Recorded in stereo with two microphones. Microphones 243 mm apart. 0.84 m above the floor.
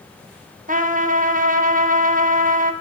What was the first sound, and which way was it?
A trumpet, 35° right (ahead or behind).